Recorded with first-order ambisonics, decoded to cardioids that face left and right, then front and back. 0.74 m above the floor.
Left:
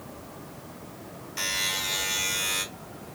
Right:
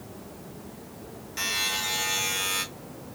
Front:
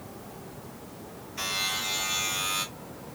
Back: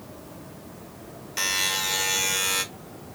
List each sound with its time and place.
1.4 s a buzzer: straight behind, 1.3 m